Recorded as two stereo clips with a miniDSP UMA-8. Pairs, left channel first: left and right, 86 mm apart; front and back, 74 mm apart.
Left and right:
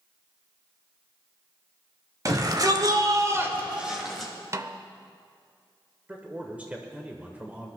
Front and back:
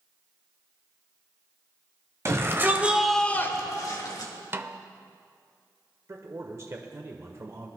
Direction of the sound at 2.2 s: 135° right.